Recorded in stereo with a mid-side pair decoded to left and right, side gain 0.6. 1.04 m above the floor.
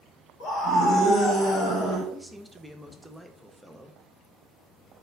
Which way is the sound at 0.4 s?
55° left.